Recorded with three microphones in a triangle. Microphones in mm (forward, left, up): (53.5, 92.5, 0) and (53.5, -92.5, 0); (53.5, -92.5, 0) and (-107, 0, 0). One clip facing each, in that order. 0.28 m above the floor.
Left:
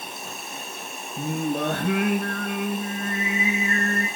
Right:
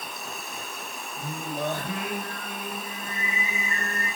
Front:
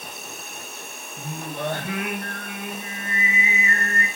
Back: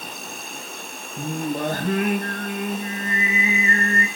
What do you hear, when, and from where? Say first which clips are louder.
0.0 s an insect: left 1 dB, back 3 dB; 150° left, 3 m
1.2 s singing: left 7 dB, back 6 dB; 105° left, 4 m